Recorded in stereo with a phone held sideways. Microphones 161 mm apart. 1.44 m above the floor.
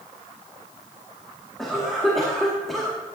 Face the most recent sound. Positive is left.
turn(degrees=0)  # may be behind; listen again after turning